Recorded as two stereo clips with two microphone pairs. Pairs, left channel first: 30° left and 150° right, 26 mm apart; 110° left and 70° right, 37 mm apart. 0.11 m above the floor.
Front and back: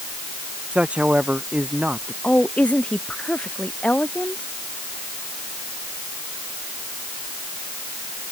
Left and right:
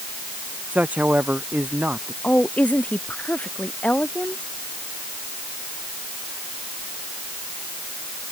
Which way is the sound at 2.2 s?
60° left.